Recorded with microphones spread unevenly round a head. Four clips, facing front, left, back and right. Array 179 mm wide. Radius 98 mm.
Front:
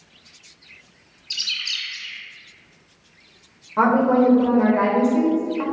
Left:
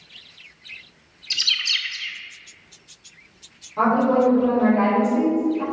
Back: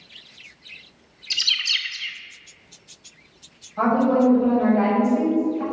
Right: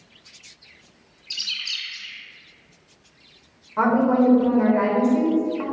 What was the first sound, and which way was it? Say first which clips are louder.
A bird: left 7 dB, back 4 dB; 110° left.